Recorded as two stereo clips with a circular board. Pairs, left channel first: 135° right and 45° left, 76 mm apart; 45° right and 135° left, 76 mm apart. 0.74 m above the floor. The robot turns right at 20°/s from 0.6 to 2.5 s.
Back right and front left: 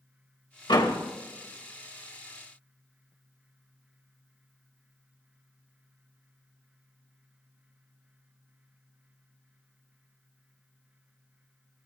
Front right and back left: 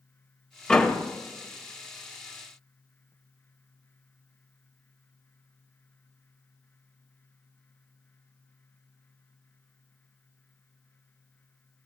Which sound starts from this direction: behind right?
A door slam, at 0.7 s.